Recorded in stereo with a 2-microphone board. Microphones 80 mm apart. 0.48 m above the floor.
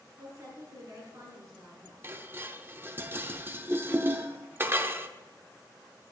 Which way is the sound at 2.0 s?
30° right (ahead or behind).